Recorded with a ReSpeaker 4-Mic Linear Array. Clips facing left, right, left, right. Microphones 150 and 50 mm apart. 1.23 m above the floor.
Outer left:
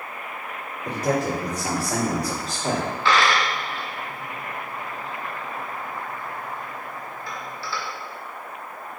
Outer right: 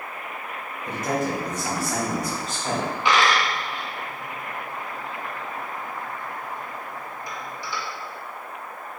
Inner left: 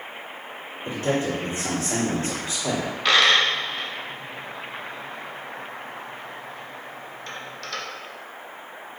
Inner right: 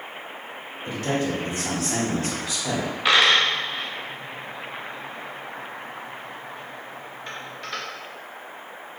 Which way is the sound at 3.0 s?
15° right (ahead or behind).